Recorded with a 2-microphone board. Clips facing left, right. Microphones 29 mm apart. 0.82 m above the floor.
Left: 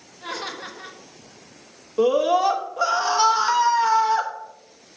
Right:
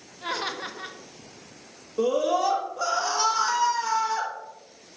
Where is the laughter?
15° right (ahead or behind), 0.9 m.